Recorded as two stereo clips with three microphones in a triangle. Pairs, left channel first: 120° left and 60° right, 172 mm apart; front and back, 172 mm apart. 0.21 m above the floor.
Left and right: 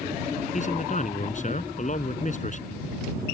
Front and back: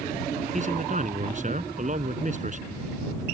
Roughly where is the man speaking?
Behind left.